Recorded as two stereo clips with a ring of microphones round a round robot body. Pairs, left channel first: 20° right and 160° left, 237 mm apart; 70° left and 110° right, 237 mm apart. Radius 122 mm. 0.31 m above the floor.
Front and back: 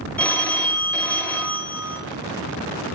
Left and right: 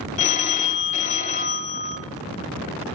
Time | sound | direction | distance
0.2 | a phone ringing | 55° left | 0.9 m